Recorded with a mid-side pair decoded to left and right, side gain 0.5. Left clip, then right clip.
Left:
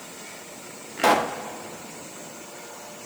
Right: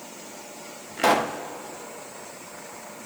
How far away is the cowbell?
No cowbell in this recording.